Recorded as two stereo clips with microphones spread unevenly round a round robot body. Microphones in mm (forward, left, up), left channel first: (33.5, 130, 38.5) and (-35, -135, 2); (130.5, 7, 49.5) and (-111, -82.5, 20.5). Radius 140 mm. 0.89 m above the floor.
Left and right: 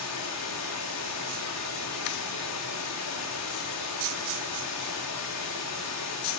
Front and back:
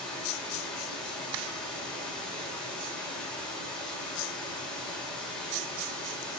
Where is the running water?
110° left, 3.5 m.